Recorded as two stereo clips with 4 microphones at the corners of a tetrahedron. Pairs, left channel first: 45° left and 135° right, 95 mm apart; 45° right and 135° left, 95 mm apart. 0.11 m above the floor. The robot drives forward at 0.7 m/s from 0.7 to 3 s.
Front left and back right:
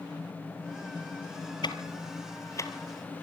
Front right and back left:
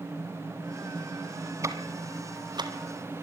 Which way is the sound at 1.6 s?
80° left.